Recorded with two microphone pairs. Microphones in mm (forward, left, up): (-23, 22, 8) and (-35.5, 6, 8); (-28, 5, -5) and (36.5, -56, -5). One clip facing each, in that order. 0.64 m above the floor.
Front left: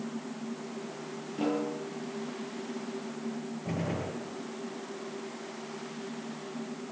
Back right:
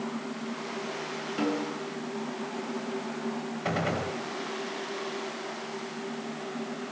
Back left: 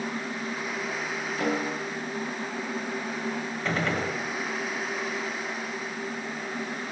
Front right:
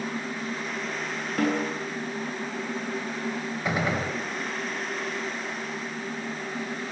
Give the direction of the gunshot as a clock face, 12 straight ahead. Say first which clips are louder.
Back right 5 dB, front right 1 dB; 4 o'clock.